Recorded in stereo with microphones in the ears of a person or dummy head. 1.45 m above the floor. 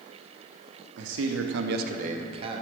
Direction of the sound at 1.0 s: 65° right (ahead or behind).